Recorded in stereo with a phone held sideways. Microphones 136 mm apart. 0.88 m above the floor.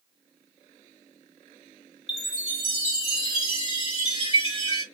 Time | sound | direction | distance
2.1 | a chime | 40° left (ahead or behind) | 1.6 m